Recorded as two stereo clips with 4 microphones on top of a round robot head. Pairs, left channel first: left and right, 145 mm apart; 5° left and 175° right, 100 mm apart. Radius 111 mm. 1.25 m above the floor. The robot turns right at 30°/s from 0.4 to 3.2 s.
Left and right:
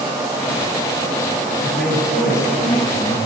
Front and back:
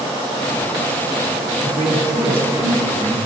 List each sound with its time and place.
1.6 s a man speaking: 165° left, 3.5 m; by 3.2 s 150° right, 3.5 m